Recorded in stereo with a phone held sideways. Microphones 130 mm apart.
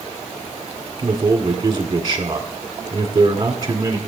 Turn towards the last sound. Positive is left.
turn(degrees=-35)  # may be behind; listen again after turning